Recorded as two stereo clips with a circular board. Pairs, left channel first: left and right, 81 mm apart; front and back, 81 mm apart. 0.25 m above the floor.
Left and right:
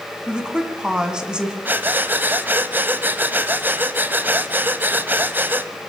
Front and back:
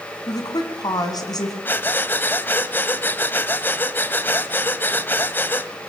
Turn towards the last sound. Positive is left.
turn(degrees=-45)